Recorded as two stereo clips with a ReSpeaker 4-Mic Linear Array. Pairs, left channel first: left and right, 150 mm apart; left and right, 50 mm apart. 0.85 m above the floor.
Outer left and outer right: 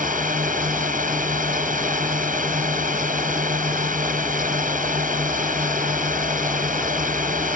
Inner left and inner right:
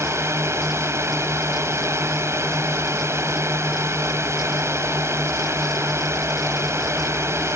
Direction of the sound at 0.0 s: 65° right (ahead or behind).